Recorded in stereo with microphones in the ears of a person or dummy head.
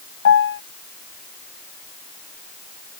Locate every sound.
0.2 s a piano: 70° left (ahead or behind)